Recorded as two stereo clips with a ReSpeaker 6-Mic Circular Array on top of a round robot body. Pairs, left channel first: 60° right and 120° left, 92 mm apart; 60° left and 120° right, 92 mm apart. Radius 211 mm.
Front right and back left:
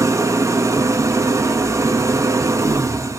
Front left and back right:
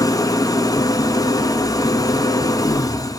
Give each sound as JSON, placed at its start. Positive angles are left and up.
{"t": 0.0, "sound": "an engine running", "azimuth_deg": 80, "distance_m": 0.7}